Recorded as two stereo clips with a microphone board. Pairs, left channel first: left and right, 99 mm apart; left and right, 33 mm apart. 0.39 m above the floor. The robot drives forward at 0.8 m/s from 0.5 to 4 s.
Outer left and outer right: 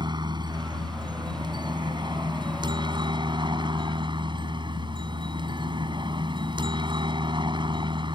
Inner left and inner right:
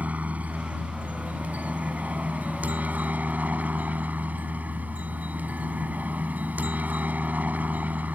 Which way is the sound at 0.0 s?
50° right (ahead or behind).